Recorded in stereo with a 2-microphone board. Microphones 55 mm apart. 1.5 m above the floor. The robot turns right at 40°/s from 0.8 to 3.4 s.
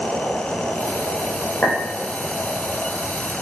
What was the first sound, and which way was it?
A clink, 25° left (ahead or behind).